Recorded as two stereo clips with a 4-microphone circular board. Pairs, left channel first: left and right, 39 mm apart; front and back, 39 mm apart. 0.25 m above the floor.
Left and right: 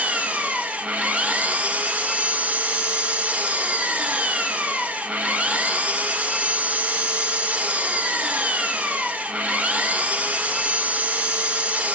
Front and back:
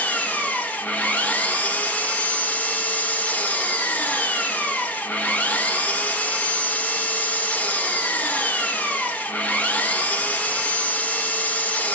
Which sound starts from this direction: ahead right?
An engine running, at 0.0 s.